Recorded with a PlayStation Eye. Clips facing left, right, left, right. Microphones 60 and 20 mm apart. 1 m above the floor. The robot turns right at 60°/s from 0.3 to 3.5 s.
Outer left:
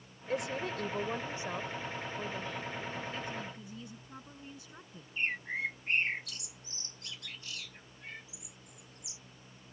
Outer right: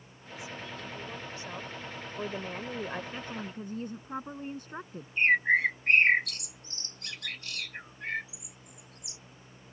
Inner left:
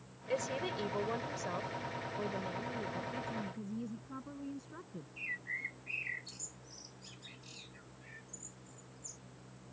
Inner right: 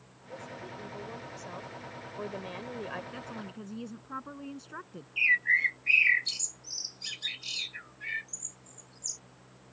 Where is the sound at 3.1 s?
25° right (ahead or behind); by 5.1 s 50° right (ahead or behind).